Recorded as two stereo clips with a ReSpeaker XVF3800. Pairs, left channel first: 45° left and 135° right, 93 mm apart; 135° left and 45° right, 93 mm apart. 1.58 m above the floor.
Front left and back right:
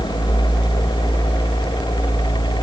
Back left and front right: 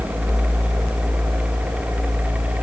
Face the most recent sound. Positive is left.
No sound to turn to.